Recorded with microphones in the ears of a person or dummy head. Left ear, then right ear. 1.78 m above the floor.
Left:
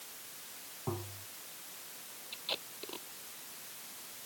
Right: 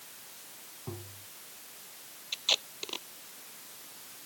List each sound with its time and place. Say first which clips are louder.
0.9 s tapping: left 5 dB; 70° left (ahead or behind)
2.3 s tape being pulled: right 10 dB; 50° right (ahead or behind)